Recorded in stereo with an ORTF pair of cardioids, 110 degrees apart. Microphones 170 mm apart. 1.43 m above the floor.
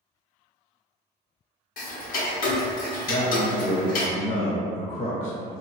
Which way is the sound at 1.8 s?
55° left.